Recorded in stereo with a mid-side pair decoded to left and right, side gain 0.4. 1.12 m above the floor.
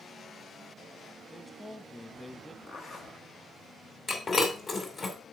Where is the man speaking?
10° left, 1.3 m.